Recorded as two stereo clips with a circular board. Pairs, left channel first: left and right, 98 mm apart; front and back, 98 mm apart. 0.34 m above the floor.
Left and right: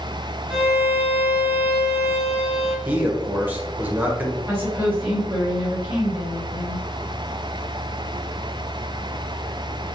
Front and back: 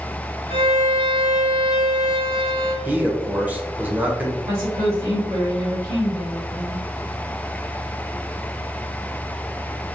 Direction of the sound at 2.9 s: 130° right.